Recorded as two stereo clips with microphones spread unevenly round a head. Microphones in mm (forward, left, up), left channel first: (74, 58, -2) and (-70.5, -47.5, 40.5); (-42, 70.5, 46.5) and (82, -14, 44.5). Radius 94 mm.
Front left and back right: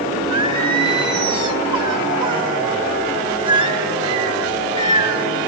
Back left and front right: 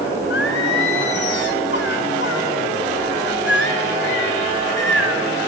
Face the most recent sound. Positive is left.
turn(degrees=155)